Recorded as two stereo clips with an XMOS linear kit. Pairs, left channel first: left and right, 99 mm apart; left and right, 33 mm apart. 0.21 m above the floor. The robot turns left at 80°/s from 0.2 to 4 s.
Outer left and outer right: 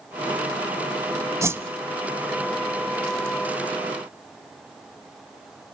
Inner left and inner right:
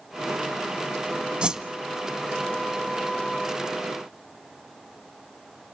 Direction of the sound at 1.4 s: 30° right (ahead or behind).